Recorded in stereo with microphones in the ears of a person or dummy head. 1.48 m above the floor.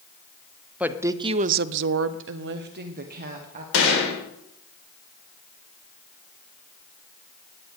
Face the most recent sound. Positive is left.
turn(degrees=80)